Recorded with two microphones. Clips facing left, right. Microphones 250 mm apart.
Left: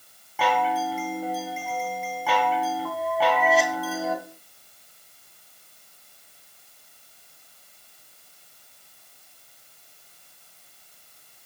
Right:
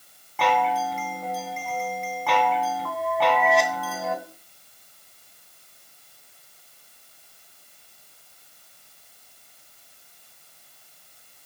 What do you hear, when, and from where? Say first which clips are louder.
0.4 s a chime: right 1 dB; 5° left (ahead or behind), 2 m